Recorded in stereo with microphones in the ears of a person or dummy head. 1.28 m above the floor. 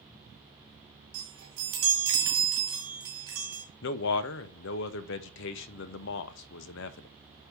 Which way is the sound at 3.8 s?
70° left (ahead or behind).